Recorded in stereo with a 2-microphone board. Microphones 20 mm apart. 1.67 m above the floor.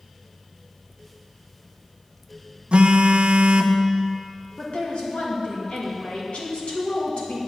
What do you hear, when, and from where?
2.7 s a phone buzzing: 65° right (ahead or behind), 0.6 m
4.6 s a woman speaking: 75° left (ahead or behind), 2.5 m